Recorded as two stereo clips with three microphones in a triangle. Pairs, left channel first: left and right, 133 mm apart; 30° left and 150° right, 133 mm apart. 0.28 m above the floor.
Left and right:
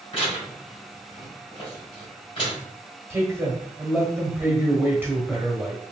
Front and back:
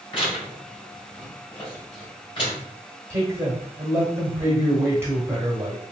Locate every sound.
0.1 s tearing paper: 65° left, 2.0 m
3.1 s a man speaking: 135° right, 1.2 m